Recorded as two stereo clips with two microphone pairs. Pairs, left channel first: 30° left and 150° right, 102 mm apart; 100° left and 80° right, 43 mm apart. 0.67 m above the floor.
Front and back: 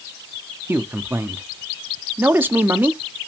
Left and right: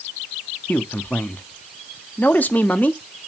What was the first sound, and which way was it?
A man speaking, 140° left.